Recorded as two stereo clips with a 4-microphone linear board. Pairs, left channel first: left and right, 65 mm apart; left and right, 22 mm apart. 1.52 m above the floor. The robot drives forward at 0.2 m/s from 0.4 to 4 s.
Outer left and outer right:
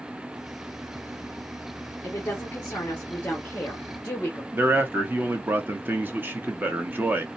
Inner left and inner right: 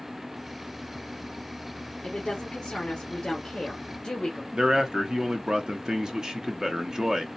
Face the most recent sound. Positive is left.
turn(degrees=-30)  # may be behind; listen again after turning